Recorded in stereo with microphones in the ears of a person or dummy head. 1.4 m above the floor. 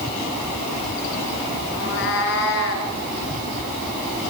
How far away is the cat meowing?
About 3.5 m.